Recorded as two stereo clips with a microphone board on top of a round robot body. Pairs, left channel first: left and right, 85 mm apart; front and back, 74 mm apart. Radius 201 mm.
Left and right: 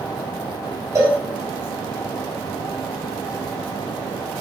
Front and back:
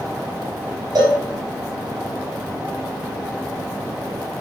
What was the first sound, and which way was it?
A cowbell, 145° right.